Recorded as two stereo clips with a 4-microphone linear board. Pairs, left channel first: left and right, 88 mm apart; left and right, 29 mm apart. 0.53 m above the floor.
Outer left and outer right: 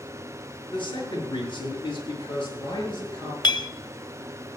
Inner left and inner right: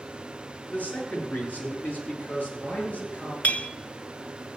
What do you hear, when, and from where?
0.7 s a man speaking: 65° left (ahead or behind), 6 m; by 3.3 s 60° left (ahead or behind), 9 m
3.4 s a clink: 55° left (ahead or behind), 0.6 m